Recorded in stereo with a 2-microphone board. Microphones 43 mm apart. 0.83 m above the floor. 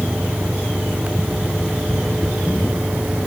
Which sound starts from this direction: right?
An engine running, at 0.0 s.